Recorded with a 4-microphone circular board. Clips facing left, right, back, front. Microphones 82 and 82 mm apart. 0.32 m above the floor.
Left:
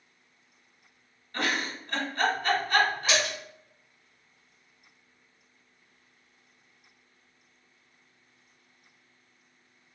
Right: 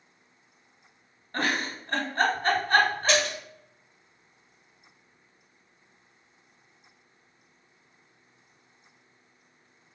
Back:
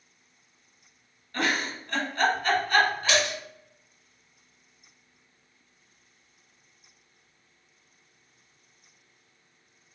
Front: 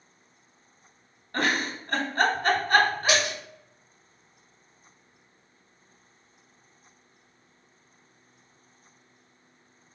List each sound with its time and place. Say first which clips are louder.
1.3 s a giggle: right 2 dB, front 1 dB; 40° right, 1.0 m
3.1 s a splash: right 3 dB, even; 30° left, 1.6 m